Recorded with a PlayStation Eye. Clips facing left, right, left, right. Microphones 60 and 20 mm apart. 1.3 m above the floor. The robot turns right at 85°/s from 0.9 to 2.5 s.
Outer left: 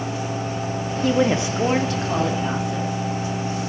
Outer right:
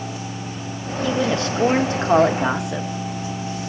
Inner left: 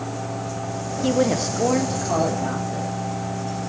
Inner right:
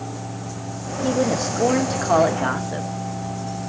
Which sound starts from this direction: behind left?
A woman speaking, at 1.0 s.